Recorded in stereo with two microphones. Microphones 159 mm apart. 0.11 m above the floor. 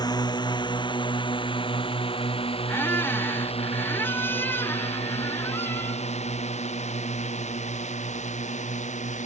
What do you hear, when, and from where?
0.0 s a drone: 25° left (ahead or behind); by 9.3 s 45° left (ahead or behind)
2.7 s a squeak: 15° left (ahead or behind)